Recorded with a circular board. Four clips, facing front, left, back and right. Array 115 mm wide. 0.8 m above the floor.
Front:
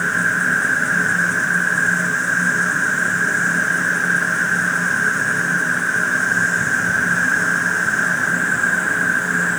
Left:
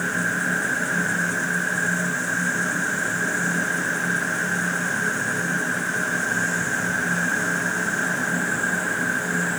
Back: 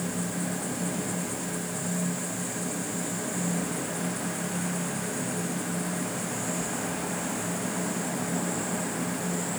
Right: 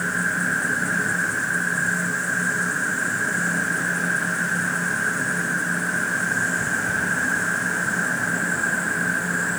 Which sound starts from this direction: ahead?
An insect, at 0.0 s.